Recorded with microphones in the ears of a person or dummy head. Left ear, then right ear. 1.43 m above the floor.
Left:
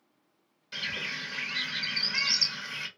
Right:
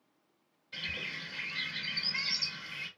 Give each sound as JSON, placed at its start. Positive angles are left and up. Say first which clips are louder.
{"t": 0.7, "sound": "a bird", "louder": "left 4 dB", "side_deg": 70, "distance_m": 1.0}